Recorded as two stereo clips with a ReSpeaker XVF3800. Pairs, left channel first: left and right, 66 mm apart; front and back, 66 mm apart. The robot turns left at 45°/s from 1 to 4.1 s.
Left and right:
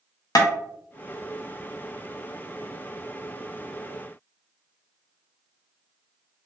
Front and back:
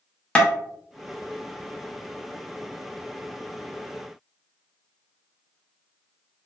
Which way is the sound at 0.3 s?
70° left.